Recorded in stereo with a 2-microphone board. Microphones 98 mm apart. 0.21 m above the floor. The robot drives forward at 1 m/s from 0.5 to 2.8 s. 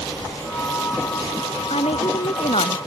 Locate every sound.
1.7 s a woman speaking: 85° left; by 2.8 s 80° left